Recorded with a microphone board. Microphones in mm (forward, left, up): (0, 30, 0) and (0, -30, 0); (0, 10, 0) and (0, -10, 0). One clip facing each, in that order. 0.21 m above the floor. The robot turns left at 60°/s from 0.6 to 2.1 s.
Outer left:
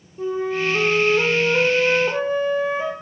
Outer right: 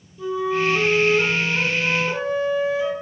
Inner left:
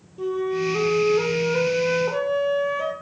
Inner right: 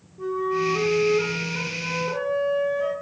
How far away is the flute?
About 0.8 m.